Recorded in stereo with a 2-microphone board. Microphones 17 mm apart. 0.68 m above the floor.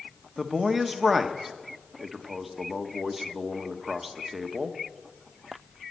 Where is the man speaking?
15° right (ahead or behind), 1.1 m.